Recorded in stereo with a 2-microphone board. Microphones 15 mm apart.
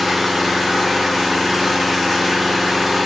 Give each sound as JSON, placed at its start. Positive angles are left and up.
{"t": 0.0, "sound": "an engine running", "side_deg": -20, "distance_m": 1.1}